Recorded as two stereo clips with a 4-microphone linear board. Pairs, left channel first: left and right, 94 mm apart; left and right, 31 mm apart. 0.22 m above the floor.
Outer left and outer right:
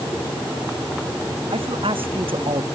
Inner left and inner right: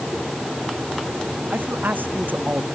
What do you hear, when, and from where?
1.5 s a man speaking: 75° right (ahead or behind)